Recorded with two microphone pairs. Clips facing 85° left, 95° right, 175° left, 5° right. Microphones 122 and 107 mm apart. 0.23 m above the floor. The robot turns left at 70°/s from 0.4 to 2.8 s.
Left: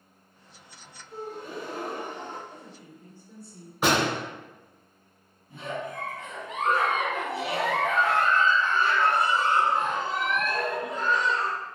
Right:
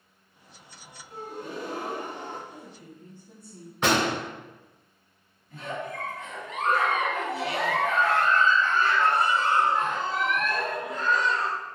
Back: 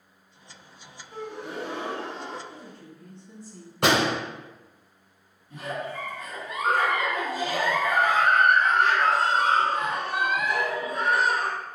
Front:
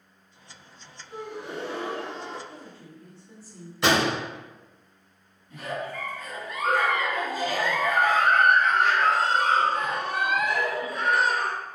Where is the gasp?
70° right, 0.7 m; by 2.4 s 160° right, 0.7 m.